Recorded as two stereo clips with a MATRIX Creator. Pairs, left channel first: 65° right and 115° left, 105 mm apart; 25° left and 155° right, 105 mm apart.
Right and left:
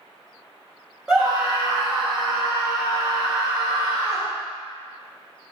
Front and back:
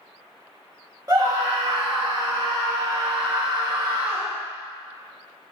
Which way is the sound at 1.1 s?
170° right.